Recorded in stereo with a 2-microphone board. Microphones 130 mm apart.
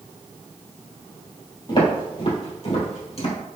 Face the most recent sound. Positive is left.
turn(degrees=55)  # may be behind; listen again after turning